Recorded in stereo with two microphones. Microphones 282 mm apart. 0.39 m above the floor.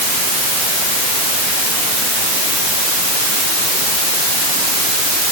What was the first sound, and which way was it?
Only background noise.